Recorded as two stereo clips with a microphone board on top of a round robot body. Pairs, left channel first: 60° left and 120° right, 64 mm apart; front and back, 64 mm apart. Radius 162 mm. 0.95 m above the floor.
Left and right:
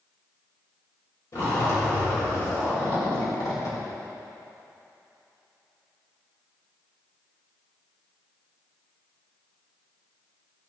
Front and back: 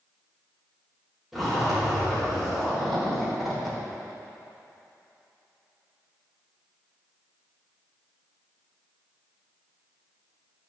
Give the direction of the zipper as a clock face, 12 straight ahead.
9 o'clock.